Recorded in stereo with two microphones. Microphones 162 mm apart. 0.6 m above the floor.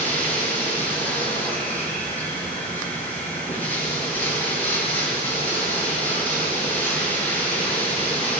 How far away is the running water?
About 7.5 m.